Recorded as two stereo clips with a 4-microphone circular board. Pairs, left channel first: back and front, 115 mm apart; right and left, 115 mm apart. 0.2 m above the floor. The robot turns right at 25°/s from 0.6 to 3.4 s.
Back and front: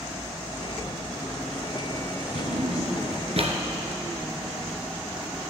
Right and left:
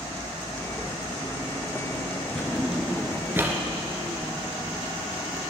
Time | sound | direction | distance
2.4 | a drawer | 5° right | 1.6 m